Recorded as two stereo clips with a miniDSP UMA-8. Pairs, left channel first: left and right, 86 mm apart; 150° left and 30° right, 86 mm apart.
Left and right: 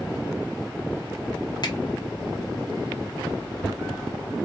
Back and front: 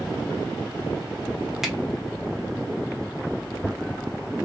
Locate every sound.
1.6 s a finger snap: 55° left, 0.8 m